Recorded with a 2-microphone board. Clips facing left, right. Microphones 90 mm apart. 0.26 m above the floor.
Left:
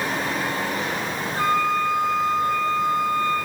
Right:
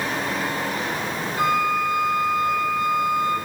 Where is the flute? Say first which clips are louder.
Even; 40° left (ahead or behind), 9.5 m.